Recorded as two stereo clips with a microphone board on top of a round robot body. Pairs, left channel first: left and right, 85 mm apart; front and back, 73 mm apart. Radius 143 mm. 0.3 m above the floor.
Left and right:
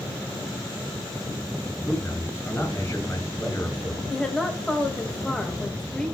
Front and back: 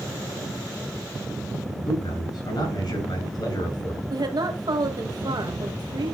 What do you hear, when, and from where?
1.9 s a man speaking: 25° left, 7 m
4.1 s a woman speaking: 170° left, 2 m